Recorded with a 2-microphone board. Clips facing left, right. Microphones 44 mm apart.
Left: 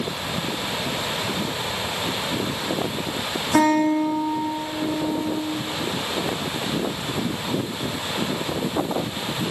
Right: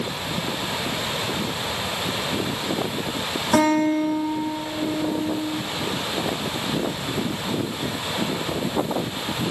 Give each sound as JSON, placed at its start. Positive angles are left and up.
{"t": 3.5, "sound": "a guitar", "side_deg": -85, "distance_m": 6.5}